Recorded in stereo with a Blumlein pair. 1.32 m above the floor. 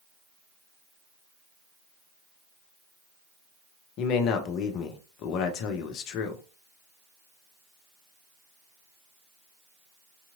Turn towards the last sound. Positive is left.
turn(degrees=40)